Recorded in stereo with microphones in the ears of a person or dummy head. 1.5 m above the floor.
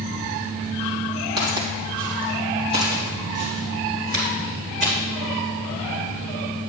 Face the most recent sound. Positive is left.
turn(degrees=-45)  # may be behind; listen again after turning